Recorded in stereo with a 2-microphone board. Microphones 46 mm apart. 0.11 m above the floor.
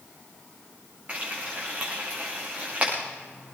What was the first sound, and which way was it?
Frying, 35° right (ahead or behind).